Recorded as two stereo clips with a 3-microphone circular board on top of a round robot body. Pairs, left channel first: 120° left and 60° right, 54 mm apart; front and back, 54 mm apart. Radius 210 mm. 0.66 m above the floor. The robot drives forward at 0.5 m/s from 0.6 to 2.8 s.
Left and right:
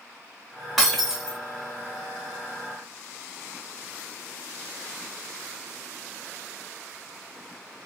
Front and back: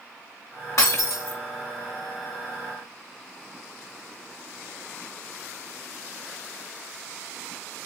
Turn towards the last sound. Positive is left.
turn(degrees=60)